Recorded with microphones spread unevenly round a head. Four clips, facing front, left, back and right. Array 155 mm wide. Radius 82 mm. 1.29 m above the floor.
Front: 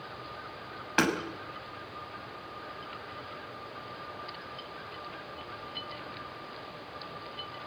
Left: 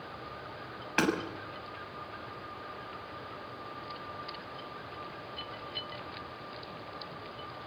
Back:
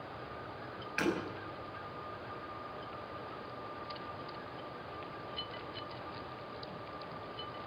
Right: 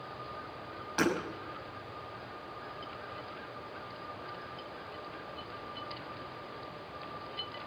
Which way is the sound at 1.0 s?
25° left.